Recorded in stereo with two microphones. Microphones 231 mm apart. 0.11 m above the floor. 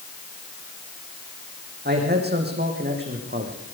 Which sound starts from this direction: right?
A man speaking, at 1.9 s.